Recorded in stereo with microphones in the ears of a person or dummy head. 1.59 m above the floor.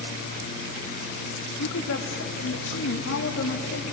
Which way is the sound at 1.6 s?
75° left (ahead or behind).